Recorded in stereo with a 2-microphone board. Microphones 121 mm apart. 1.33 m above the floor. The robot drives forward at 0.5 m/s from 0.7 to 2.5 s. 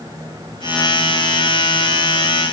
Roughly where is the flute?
I don't hear a flute.